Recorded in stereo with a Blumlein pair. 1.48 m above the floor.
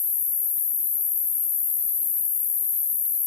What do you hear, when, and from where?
0.0 s an insect: 45° left, 1.0 m